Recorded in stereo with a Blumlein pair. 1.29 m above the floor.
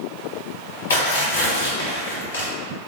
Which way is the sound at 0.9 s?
70° left.